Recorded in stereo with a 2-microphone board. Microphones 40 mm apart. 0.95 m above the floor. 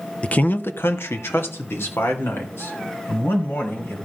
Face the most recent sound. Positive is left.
turn(degrees=75)  # may be behind; listen again after turning